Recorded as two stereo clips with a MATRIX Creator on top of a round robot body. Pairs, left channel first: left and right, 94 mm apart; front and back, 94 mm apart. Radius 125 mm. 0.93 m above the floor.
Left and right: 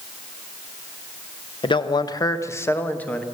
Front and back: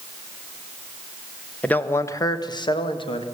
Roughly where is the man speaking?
Left.